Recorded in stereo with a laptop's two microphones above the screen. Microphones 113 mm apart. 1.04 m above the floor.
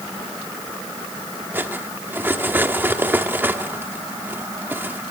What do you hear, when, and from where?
1.5 s cutlery clinking: 15° right (ahead or behind), 1.1 m